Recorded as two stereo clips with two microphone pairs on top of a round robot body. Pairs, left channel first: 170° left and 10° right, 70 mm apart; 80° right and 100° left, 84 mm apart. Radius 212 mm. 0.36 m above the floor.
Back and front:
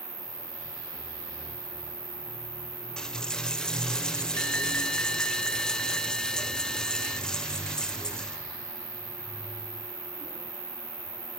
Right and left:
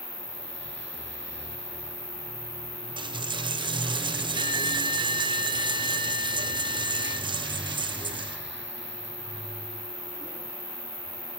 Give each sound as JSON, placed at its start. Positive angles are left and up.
{"t": 0.0, "sound": "an insect", "azimuth_deg": -45, "distance_m": 4.5}
{"t": 3.0, "sound": "a dropped coin", "azimuth_deg": 95, "distance_m": 1.2}